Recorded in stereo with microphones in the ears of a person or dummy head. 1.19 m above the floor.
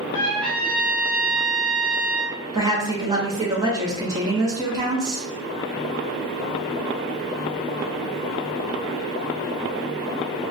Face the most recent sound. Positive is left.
turn(degrees=-15)  # may be behind; listen again after turning